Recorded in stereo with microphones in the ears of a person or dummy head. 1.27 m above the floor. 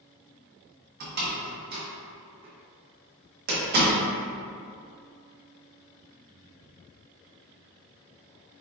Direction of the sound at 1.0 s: 50° right (ahead or behind).